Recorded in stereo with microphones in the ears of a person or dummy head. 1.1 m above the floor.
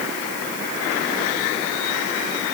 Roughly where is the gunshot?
No gunshot in this recording.